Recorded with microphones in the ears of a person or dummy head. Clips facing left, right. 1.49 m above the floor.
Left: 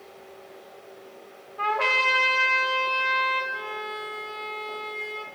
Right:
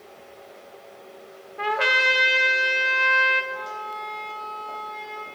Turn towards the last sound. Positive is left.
turn(degrees=30)  # may be behind; listen again after turning